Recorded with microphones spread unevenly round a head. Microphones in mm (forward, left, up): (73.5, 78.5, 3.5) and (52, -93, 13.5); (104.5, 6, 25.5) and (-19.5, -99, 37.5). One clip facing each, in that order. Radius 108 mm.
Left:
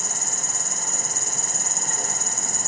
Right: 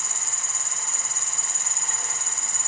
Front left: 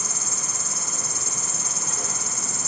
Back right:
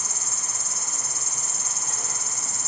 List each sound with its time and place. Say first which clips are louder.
0.0 s an insect: left 6 dB, front left 4 dB; 30° left, 0.7 m